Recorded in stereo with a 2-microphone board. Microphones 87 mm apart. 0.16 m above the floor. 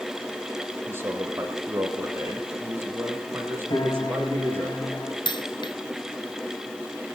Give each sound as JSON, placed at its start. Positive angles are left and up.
{"t": 0.9, "sound": "a man speaking", "side_deg": -25, "distance_m": 6.0}
{"t": 3.7, "sound": "a piano", "side_deg": 50, "distance_m": 7.0}
{"t": 5.2, "sound": "a dropped coin", "side_deg": 60, "distance_m": 1.1}